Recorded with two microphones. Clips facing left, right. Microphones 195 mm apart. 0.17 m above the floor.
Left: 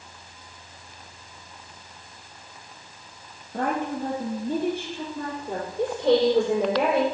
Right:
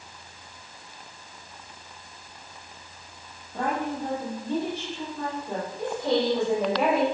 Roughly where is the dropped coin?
No dropped coin in this recording.